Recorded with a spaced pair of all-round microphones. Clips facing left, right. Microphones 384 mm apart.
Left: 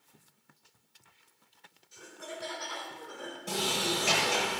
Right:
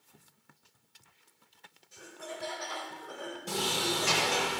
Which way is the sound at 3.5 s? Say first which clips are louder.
Left 1 dB; 30° right (ahead or behind).